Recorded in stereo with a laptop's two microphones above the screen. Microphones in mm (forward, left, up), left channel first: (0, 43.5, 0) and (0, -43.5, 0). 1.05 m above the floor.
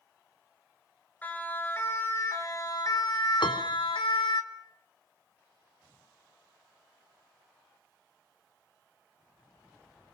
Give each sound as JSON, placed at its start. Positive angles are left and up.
{"t": 1.2, "sound": "a siren", "side_deg": 20, "distance_m": 3.0}
{"t": 3.4, "sound": "a piano", "side_deg": 85, "distance_m": 2.5}